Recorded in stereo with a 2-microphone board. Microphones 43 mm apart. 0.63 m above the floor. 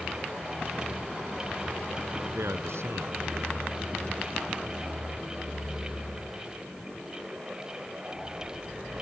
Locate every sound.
2.4 s a man speaking: 80° right